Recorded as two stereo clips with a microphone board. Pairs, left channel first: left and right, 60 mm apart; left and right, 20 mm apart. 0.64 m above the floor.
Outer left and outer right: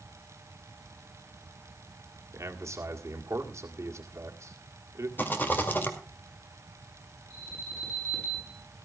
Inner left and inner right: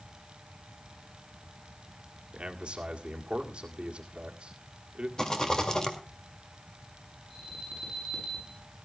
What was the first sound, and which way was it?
A man speaking, 55° right (ahead or behind).